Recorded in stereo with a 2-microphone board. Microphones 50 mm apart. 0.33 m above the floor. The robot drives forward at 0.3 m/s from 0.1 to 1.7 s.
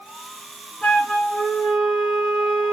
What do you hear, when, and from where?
0.8 s a flute: 25° left (ahead or behind), 2.5 m